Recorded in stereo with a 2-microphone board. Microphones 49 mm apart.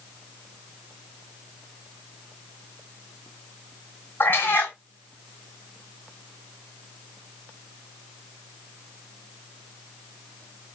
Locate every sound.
4.2 s a cat meowing: 45° left (ahead or behind), 0.8 m